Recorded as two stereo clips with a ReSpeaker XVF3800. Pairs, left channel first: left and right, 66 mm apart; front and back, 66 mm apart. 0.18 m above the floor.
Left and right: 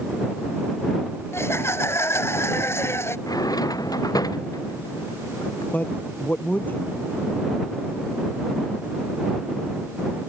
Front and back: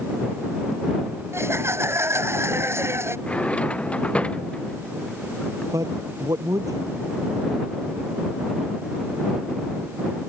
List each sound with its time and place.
1.3 s laughter: 135° left
3.3 s a drawer: 70° left
5.7 s a man speaking: 150° left